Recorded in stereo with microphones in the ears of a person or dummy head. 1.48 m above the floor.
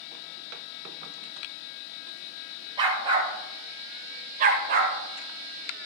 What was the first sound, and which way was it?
A dog barking, 25° right (ahead or behind).